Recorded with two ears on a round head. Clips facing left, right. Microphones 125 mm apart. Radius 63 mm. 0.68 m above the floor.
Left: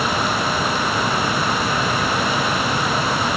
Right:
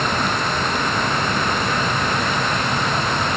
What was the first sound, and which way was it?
Only background noise.